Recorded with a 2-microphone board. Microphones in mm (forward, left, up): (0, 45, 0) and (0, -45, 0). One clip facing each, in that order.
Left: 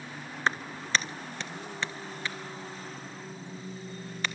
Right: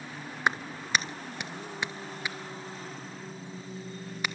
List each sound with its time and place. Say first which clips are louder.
0.5 s a clap: right 1 dB; 15° right (ahead or behind), 1.3 m